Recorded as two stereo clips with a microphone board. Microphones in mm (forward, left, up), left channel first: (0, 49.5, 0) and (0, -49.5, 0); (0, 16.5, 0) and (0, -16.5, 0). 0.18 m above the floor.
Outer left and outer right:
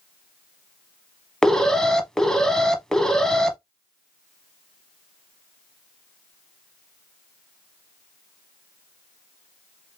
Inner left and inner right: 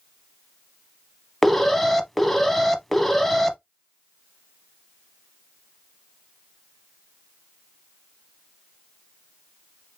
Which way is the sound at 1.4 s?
5° left (ahead or behind).